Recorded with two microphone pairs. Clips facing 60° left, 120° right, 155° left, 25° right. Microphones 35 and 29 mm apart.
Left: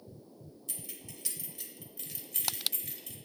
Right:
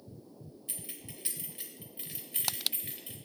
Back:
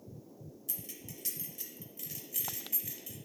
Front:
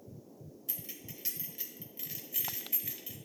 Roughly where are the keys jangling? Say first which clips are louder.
Even, front 1 dB; right.